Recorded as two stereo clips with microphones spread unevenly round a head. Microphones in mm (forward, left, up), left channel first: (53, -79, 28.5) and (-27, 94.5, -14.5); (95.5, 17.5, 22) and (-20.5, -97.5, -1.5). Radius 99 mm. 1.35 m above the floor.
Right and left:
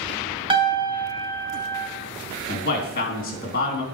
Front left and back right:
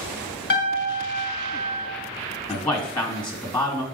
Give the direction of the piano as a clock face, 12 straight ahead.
10 o'clock.